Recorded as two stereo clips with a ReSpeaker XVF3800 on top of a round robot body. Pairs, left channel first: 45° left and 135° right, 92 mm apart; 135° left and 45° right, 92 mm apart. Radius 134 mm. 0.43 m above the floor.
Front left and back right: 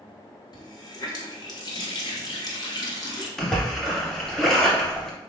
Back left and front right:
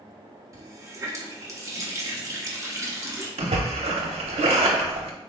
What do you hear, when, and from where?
0.5 s a running tap: 10° left, 1.1 m
3.4 s a splash: 40° right, 0.5 m